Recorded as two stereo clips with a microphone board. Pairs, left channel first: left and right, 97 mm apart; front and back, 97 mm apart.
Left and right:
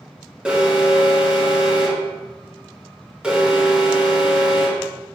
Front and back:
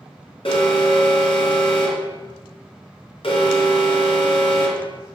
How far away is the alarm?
About 4 m.